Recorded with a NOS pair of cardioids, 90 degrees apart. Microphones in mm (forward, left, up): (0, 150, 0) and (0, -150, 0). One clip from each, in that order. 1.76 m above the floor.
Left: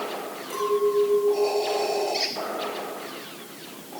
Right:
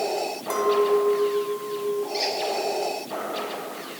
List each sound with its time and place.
0.5 s a clink: 70° right, 6 m
2.1 s a squeak: straight ahead, 4 m